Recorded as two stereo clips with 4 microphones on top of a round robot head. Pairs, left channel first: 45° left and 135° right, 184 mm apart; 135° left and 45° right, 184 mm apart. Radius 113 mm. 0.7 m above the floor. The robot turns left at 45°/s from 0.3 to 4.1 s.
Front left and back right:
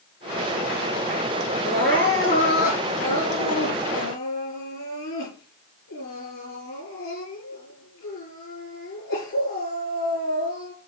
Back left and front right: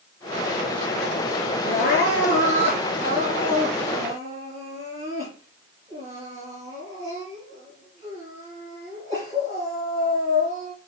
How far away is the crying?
About 6 m.